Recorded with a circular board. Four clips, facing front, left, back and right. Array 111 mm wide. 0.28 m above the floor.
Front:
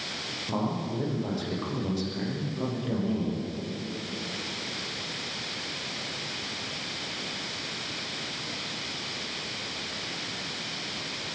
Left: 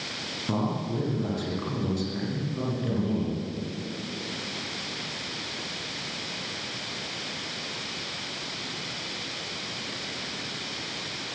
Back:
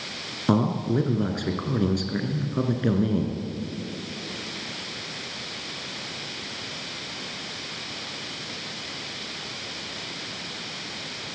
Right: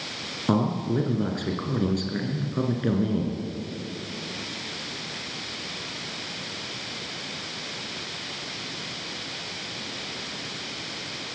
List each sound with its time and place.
0.5 s a man speaking: 150° right, 3 m